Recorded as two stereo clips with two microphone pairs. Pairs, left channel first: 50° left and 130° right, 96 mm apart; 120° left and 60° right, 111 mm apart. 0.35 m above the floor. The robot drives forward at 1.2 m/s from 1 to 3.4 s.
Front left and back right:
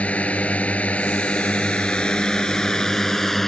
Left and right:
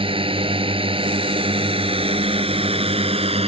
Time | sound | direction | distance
0.0 | a drone | 25° right | ?